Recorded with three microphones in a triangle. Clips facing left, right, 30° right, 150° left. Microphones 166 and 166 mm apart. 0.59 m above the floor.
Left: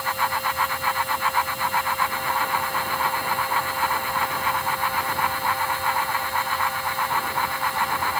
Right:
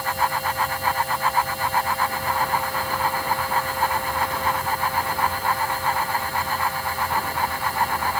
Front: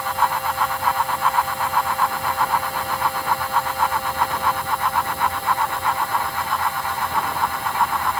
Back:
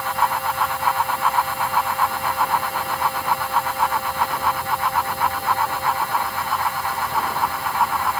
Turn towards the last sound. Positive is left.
No sound to turn to.